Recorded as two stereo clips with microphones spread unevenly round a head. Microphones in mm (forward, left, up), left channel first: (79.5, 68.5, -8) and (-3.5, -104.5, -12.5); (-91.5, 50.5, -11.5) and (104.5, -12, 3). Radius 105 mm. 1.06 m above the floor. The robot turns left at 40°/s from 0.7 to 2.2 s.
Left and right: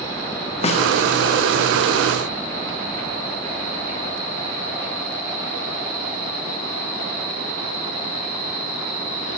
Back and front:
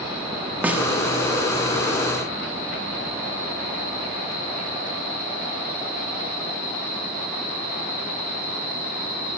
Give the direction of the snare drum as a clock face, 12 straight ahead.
10 o'clock.